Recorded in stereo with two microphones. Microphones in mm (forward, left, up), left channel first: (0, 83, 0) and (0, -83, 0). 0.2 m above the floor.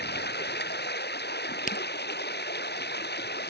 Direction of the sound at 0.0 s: 85° left.